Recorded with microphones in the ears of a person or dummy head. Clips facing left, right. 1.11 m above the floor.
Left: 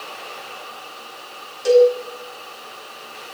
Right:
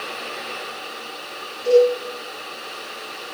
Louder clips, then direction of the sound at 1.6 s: Left 2 dB; 70° left (ahead or behind).